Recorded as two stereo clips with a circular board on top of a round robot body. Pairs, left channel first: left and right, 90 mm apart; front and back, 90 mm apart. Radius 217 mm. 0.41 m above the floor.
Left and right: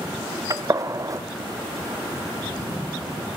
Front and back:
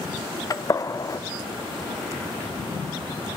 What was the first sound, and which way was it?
A gunshot, 45° right.